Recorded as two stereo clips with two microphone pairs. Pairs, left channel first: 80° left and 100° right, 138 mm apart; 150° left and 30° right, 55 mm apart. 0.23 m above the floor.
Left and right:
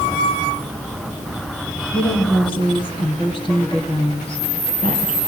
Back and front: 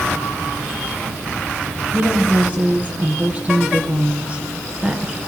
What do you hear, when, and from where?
1.9 s a woman speaking: 30° left, 4 m; by 5.2 s 45° left, 2.5 m